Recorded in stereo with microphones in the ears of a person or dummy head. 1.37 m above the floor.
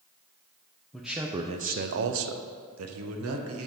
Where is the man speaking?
Centre (ahead or behind), 0.5 m; by 3.7 s 80° right, 1.2 m.